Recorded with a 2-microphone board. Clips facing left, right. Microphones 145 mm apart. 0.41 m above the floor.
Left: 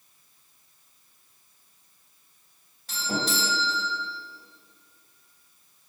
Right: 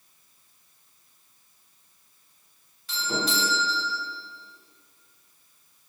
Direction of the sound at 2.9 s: 45° left (ahead or behind).